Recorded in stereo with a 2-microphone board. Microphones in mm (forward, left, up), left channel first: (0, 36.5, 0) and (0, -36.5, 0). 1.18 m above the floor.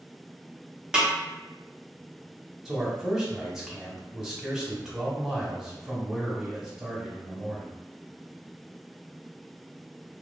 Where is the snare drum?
10° right (ahead or behind), 0.8 m.